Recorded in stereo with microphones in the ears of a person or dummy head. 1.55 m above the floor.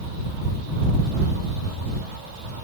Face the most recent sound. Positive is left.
No sound to turn to.